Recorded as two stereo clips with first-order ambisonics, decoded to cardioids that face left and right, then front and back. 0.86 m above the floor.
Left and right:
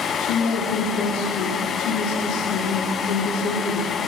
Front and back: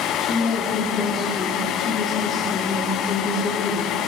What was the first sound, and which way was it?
A woman speaking, 60° left.